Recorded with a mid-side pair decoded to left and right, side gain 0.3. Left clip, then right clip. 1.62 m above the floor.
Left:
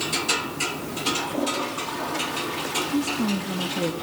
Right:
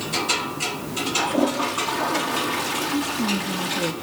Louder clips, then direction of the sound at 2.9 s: Right 2 dB; 15° left.